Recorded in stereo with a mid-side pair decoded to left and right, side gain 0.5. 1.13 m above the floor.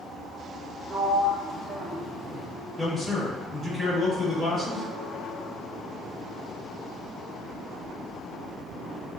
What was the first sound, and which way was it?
A sliding door, 25° right.